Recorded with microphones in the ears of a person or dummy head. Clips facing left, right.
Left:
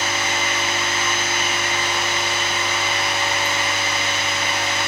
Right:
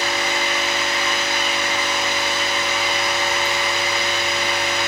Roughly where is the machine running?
Left.